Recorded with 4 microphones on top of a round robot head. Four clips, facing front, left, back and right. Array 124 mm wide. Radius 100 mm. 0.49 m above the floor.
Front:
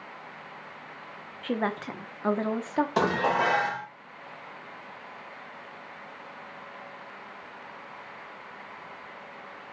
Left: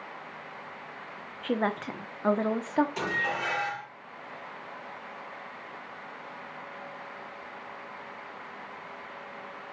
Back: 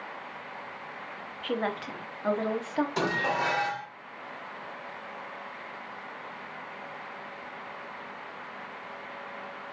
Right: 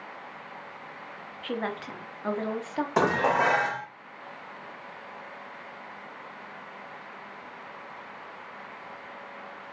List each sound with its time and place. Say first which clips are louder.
1.4 s a woman speaking: left 4 dB, front 2 dB; 50° left, 1.3 m
3.0 s dishes clattering: right 8 dB, front 4 dB; 60° right, 1.3 m